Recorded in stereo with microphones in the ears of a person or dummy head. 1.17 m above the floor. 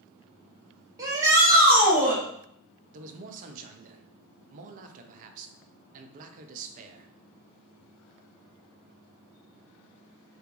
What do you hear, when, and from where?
1.0 s a shout: 20° right (ahead or behind), 0.7 m; by 2.2 s 10° right (ahead or behind), 1.4 m
2.9 s a man speaking: 45° right (ahead or behind), 0.5 m